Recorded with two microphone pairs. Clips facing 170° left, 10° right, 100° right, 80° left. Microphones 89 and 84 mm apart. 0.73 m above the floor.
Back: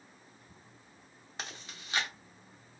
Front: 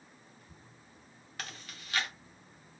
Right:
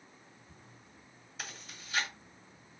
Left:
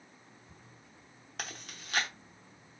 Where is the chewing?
100° left, 0.8 m.